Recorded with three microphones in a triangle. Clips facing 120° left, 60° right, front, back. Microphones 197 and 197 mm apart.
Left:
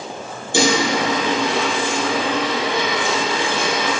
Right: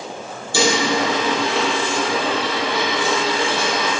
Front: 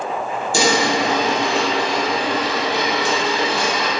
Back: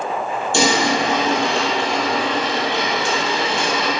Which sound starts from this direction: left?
A dropped coin, at 0.5 s.